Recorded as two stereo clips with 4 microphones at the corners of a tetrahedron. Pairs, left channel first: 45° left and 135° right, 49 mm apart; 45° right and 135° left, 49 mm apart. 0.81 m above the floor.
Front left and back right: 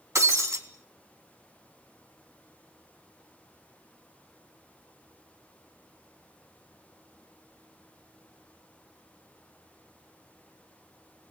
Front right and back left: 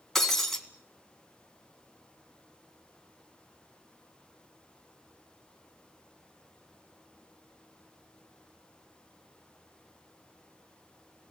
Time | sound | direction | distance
0.1 | breaking glass | 130° right | 3 m